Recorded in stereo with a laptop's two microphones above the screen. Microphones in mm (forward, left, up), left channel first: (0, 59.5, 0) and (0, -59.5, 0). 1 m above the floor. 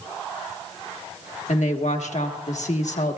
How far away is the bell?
No bell in this recording.